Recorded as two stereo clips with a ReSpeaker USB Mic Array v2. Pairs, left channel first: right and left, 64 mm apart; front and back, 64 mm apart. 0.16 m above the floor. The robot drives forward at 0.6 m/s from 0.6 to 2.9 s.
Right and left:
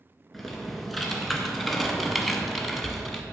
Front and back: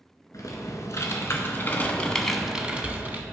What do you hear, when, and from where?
0.3 s typing on a keyboard: straight ahead, 1.3 m; by 3.2 s straight behind, 0.8 m